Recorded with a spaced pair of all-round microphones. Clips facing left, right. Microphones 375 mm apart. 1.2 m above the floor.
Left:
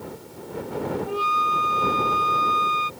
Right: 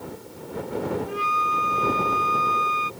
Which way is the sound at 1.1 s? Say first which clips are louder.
Left 2 dB; 50° left (ahead or behind).